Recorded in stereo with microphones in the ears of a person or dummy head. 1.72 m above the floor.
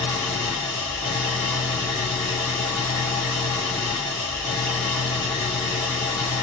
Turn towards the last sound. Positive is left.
turn(degrees=20)  # may be behind; listen again after turning